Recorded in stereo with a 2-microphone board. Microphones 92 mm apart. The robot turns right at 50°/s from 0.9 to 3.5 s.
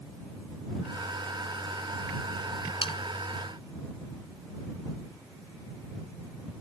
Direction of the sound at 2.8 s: 75° left (ahead or behind).